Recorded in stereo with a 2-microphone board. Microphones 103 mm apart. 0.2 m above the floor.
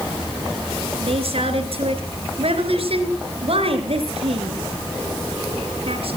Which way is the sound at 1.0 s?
70° right (ahead or behind).